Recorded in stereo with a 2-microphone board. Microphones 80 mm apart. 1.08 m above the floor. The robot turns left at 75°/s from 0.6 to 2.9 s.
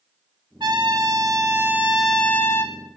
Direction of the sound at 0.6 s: 70° right.